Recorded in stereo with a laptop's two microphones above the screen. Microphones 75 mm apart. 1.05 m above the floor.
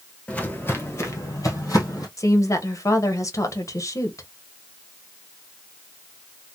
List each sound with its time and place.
0.3 s footsteps: 20° left (ahead or behind), 1.0 m; by 2.1 s 55° left (ahead or behind), 2 m
2.2 s a woman speaking: 45° left (ahead or behind), 0.8 m